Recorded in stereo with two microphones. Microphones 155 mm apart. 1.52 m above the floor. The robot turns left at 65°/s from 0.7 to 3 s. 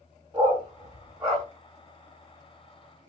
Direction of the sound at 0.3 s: 30° right (ahead or behind).